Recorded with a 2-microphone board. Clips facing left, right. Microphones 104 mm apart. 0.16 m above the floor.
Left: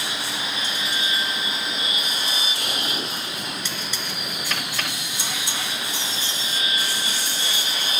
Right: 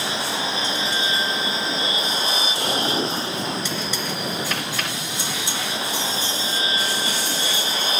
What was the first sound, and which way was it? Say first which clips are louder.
An aircraft: right 5 dB; 30° right (ahead or behind).